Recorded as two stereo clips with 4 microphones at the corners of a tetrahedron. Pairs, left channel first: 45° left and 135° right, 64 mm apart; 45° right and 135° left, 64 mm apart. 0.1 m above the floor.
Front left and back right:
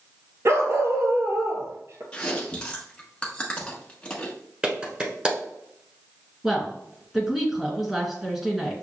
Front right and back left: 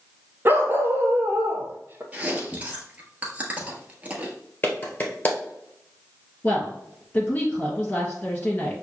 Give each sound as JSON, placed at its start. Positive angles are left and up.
{"t": 0.5, "sound": "a dog barking", "azimuth_deg": -175, "distance_m": 0.7}
{"t": 2.1, "sound": "chewing", "azimuth_deg": 100, "distance_m": 1.0}
{"t": 4.6, "sound": "a clap", "azimuth_deg": -75, "distance_m": 1.2}
{"t": 6.4, "sound": "a woman speaking", "azimuth_deg": -60, "distance_m": 1.7}